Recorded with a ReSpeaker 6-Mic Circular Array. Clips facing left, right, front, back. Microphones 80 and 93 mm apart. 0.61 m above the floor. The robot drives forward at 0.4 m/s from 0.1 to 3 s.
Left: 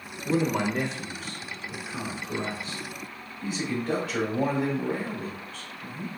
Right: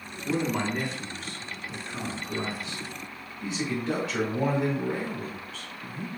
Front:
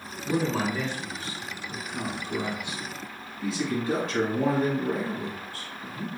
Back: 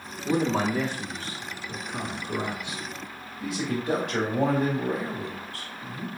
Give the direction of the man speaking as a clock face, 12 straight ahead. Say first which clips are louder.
Left 2 dB, back 2 dB; 6 o'clock.